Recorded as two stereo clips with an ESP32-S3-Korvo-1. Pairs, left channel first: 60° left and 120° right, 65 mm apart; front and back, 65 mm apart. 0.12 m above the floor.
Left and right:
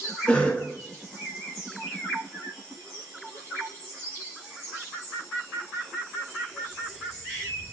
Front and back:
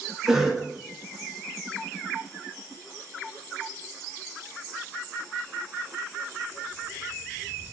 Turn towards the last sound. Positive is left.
turn(degrees=105)